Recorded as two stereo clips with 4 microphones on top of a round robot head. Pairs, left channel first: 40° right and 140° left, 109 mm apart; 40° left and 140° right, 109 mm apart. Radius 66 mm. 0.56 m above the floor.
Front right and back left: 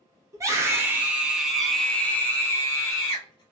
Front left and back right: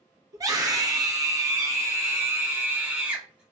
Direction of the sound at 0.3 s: 175° right.